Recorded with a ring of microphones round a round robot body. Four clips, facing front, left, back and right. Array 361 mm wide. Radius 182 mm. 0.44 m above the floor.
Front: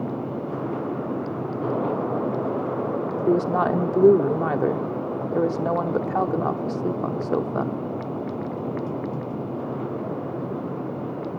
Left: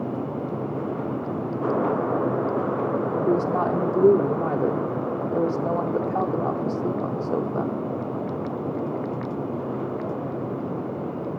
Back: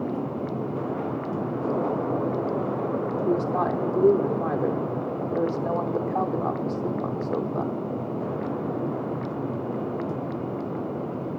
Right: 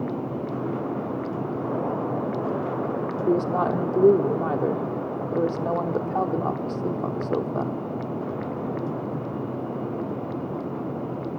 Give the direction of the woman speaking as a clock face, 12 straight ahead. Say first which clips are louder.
Right 1 dB, front 5 dB; 12 o'clock.